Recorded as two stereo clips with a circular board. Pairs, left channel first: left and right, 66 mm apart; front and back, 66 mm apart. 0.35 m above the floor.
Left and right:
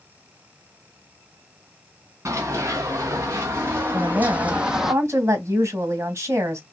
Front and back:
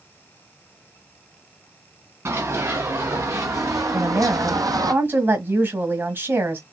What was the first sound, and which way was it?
Running footsteps, 135° right.